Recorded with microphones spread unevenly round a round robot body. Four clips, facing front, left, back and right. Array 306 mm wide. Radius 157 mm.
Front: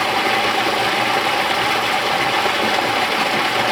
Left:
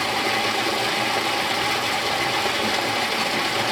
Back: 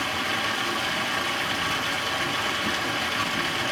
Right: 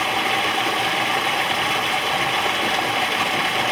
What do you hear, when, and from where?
0.0 s running water: straight ahead, 1.1 m